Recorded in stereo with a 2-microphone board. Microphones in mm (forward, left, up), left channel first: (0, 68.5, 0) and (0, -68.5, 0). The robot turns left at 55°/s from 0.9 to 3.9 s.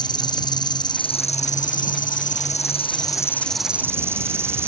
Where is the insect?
150° left; by 4.7 s 15° right.